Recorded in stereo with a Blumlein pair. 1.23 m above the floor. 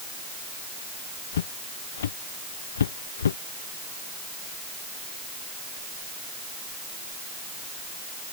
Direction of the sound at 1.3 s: 65° left.